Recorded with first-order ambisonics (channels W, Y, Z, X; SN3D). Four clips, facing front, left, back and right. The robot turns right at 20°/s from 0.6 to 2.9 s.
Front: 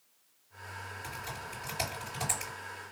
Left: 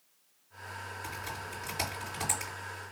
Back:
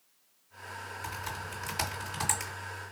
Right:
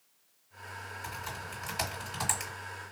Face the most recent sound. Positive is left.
turn(degrees=-125)